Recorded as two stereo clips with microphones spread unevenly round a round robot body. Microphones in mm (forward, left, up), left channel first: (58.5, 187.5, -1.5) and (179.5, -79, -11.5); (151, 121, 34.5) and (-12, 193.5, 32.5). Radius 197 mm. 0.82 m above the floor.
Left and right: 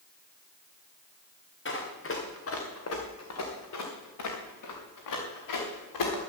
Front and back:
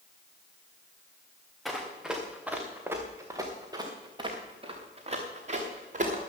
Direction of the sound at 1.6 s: 65° left.